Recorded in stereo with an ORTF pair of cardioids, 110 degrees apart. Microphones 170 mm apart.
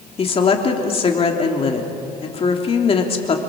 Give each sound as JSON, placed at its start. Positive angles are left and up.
{"t": 0.2, "sound": "a woman speaking", "azimuth_deg": 35, "distance_m": 3.0}